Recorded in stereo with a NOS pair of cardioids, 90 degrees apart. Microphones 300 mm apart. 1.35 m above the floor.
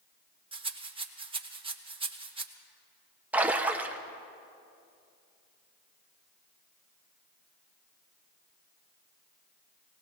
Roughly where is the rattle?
Ahead.